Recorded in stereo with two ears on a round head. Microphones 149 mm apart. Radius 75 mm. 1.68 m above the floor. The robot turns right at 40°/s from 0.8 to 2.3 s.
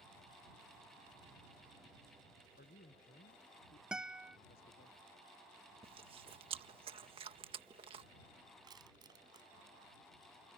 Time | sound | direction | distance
2.6 | a man speaking | 60° left (ahead or behind) | ?
3.9 | a guitar | 5° right (ahead or behind) | ?
5.8 | chewing | 35° right (ahead or behind) | ?
8.6 | crushing | 25° right (ahead or behind) | ?